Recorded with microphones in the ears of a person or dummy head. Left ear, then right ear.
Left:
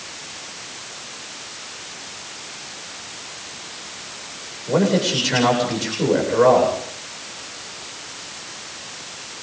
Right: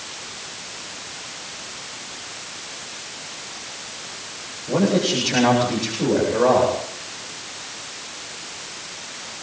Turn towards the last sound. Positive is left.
turn(degrees=60)  # may be behind; listen again after turning